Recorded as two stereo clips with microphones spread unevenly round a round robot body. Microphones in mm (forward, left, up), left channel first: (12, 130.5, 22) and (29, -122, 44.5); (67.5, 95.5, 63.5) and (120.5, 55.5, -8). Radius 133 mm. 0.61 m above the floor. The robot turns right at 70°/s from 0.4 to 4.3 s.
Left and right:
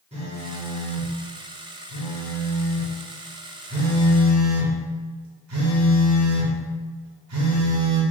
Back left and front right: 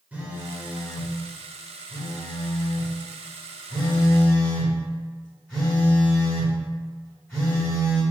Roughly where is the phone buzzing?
Ahead.